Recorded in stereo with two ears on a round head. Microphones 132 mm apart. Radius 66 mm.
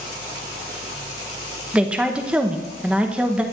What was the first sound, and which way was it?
A woman speaking, 10° right (ahead or behind).